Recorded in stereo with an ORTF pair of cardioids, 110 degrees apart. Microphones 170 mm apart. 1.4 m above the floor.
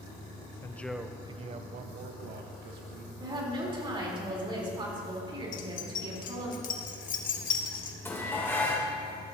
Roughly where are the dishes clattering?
Ahead.